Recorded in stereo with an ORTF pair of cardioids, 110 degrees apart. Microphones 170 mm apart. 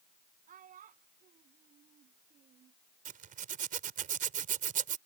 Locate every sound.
0.5 s a child speaking: 55° right
3.0 s a zipper: 55° right